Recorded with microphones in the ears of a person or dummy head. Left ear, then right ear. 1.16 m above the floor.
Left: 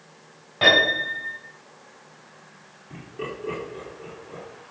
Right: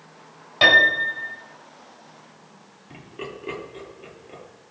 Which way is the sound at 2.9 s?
45° right (ahead or behind).